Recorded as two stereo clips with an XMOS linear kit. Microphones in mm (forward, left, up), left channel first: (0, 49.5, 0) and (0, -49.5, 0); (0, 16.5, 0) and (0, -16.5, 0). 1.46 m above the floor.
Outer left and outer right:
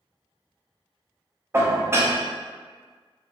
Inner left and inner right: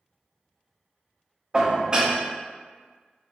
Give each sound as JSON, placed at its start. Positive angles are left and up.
{"t": 1.5, "sound": "dishes clattering", "side_deg": -25, "distance_m": 0.5}